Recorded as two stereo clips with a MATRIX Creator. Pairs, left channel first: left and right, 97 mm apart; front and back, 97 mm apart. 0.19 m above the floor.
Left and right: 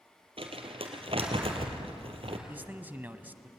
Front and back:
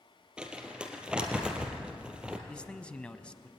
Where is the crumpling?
100° right, 3 m.